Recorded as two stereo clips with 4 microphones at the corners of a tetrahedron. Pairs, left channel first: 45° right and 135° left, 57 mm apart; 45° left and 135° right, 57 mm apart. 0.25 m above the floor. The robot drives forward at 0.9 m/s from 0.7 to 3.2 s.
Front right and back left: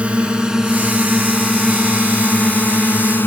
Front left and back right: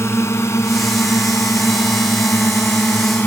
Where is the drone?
70° left; by 3.3 s 5° right.